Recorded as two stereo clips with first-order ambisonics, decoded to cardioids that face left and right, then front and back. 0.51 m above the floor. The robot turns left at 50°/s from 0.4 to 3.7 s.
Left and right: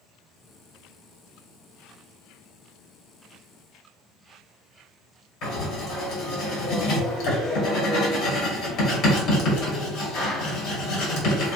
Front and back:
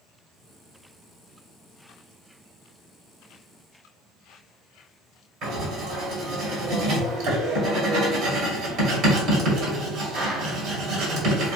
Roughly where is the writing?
Behind left.